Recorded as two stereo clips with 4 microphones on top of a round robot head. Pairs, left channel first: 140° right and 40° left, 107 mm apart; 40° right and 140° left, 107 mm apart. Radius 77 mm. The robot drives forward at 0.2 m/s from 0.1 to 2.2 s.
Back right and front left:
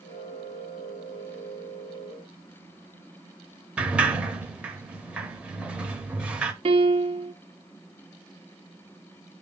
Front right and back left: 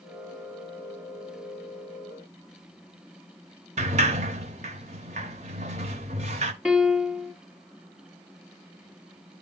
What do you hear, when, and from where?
3.8 s a sliding door: 115° left, 0.7 m
6.7 s a piano: 60° left, 1.4 m